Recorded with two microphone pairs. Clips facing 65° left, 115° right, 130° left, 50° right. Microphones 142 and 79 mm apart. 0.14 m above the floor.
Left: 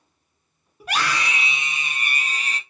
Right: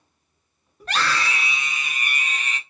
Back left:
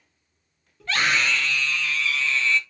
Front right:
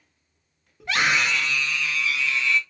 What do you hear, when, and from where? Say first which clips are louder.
0.8 s a scream: even, front right 1 dB; 5° right, 1.4 m; by 2.6 s 25° left, 2.0 m